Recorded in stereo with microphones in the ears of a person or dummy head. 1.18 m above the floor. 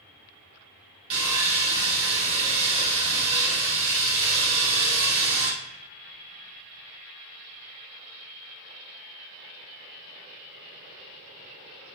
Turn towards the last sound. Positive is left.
turn(degrees=-35)  # may be behind; listen again after turning